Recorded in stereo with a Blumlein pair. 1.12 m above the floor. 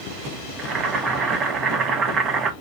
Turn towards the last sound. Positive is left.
turn(degrees=-25)